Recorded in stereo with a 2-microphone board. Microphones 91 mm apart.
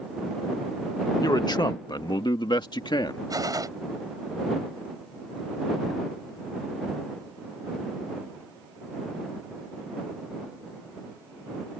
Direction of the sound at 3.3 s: 45° right (ahead or behind).